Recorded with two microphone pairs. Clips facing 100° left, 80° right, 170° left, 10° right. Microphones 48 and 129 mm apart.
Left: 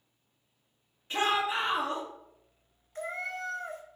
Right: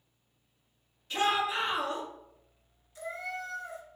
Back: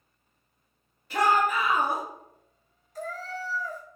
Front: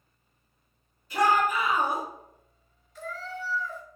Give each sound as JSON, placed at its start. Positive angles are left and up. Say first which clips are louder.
{"t": 1.1, "sound": "a shout", "louder": "even, even", "azimuth_deg": 160, "distance_m": 2.0}
{"t": 3.0, "sound": "a cat meowing", "louder": "left 2 dB, back 2 dB", "azimuth_deg": 135, "distance_m": 0.6}